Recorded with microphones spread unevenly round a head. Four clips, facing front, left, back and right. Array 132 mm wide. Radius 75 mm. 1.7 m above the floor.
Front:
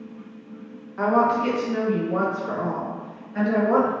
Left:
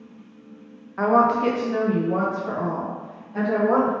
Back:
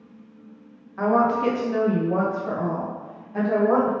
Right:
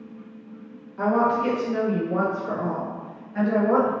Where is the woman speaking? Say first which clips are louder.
Left 3 dB, even; 90° left, 0.6 m; by 3.9 s 175° left, 1.6 m.